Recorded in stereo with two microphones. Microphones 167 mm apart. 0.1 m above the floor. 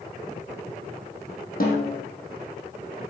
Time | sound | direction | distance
1.6 | a snare drum | 60° left (ahead or behind) | 2.5 m